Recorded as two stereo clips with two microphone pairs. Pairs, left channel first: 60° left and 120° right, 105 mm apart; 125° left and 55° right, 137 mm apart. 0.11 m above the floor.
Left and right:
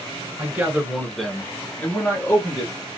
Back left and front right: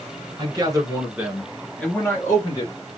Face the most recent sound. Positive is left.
turn(degrees=85)